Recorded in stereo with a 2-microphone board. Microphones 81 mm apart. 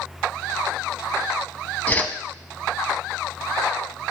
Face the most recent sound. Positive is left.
turn(degrees=20)  # may be behind; listen again after turning